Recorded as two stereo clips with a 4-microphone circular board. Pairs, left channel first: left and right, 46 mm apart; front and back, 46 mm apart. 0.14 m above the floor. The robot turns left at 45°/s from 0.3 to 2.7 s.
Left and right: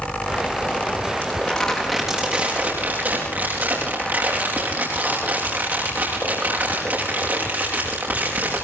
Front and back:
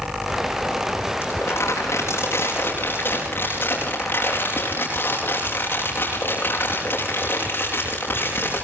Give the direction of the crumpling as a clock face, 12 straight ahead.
11 o'clock.